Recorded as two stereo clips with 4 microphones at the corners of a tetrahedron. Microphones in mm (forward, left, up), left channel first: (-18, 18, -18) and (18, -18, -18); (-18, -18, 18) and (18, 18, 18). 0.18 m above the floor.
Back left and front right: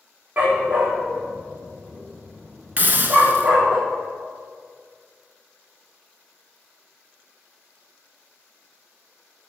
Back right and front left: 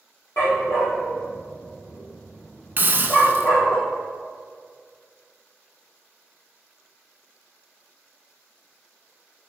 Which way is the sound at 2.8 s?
Straight ahead.